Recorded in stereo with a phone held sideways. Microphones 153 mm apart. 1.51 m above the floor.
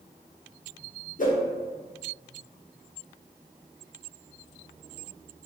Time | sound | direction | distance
1.2 | a whoosh | 65° left (ahead or behind) | 0.5 m